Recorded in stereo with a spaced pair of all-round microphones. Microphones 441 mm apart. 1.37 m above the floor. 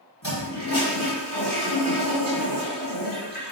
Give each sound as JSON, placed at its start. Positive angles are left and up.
{"t": 0.2, "sound": "a toilet flushing", "side_deg": 50, "distance_m": 5.0}